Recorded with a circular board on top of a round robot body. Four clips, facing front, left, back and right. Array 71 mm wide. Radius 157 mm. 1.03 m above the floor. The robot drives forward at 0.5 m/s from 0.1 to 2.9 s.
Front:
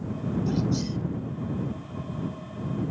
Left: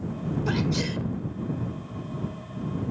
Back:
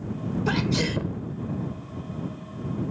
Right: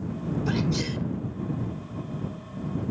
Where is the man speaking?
I don't hear a man speaking.